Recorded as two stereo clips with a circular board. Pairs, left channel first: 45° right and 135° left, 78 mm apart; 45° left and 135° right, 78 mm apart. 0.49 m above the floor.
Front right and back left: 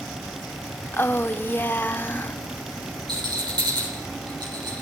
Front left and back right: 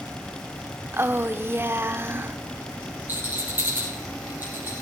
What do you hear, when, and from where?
0.9 s a woman speaking: 90° right, 0.8 m
3.1 s a rattle: 160° left, 5.5 m